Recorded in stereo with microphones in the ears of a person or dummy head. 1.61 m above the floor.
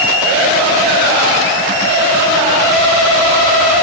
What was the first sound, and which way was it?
Only background noise.